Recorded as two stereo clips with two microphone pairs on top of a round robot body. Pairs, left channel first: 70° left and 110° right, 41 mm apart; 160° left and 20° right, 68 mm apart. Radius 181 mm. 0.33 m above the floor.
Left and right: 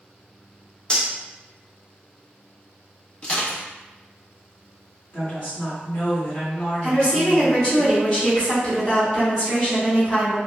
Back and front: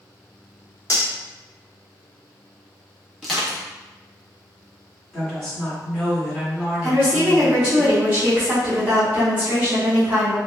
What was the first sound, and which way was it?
Cutlery clinking, 125° left.